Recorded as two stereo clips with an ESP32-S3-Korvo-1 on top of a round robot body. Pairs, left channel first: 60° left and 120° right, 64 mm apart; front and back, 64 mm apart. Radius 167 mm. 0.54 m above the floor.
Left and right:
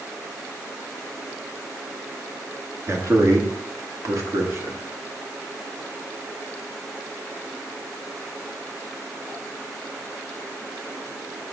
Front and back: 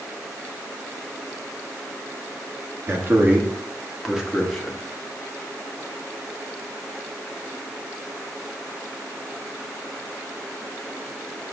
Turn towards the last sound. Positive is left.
turn(degrees=-85)